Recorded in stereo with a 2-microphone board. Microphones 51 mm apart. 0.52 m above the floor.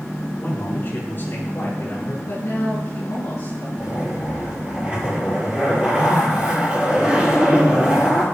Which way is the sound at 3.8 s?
20° right (ahead or behind).